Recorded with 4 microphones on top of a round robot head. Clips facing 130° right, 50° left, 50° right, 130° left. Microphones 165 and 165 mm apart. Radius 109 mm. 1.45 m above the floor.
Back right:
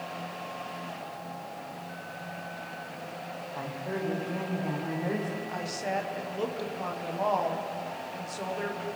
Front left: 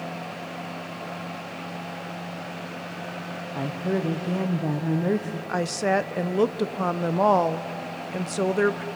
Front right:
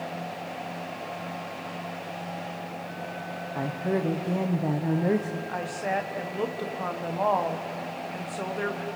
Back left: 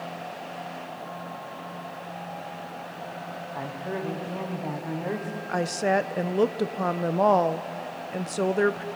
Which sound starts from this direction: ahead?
A woman speaking, at 3.5 s.